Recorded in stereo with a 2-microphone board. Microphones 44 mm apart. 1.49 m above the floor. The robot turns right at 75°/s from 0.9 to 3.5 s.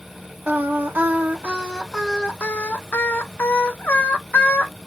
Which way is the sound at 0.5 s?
70° right.